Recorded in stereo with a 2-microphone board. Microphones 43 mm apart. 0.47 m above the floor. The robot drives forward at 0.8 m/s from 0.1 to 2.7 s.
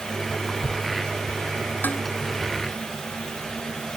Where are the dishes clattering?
45° left (ahead or behind).